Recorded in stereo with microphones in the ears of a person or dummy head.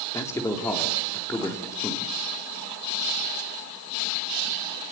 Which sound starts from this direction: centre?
A man speaking, at 0.1 s.